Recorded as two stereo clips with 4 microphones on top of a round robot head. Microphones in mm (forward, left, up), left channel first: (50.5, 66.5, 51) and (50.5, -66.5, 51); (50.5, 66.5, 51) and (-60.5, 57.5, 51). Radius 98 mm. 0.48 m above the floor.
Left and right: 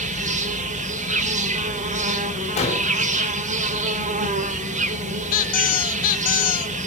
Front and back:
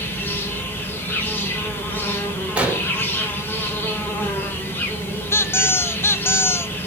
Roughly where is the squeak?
Left.